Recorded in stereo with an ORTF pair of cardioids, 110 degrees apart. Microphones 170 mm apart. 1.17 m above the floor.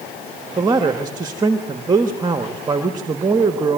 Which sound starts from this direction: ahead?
A man speaking, at 0.6 s.